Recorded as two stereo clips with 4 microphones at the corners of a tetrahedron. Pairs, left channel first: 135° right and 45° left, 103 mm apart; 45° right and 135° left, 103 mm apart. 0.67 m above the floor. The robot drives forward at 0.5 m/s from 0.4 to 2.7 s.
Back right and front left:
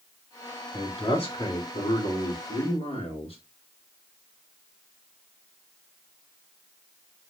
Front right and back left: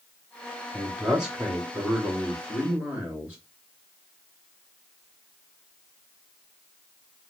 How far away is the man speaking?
About 1.9 m.